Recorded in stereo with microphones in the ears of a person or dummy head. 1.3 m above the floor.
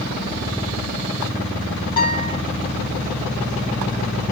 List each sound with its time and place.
2.0 s a guitar: 25° left (ahead or behind), 3.5 m